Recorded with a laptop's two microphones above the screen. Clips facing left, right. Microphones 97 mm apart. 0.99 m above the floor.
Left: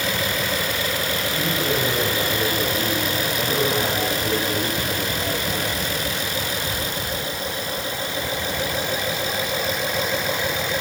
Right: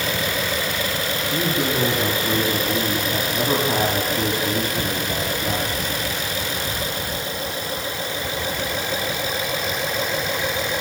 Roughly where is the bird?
No bird in this recording.